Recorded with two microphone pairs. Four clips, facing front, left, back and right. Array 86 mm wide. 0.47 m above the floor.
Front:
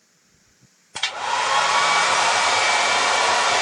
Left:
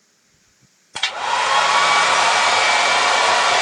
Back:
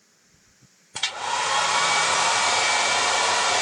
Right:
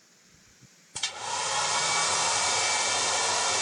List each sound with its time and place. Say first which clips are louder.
0.9 s a hair dryer: left 13 dB, front 3 dB; 75° left, 0.6 m